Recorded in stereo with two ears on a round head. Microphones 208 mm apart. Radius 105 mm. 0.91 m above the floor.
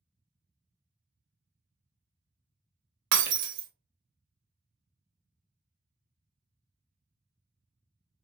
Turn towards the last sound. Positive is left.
turn(degrees=-70)  # may be behind; listen again after turning